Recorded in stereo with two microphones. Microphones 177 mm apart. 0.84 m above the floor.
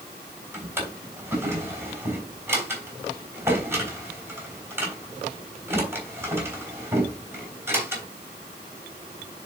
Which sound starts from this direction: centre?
A drawer, at 0.5 s.